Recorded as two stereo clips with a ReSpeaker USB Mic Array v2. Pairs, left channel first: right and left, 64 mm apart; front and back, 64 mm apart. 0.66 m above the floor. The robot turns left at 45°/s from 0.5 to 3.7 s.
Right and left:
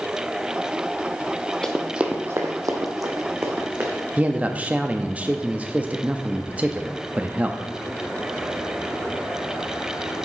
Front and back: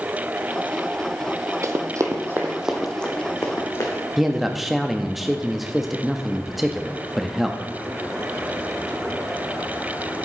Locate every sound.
1.6 s running footsteps: 165° right, 1.1 m; by 4.0 s 30° left, 2.5 m
4.2 s a man speaking: 95° left, 0.6 m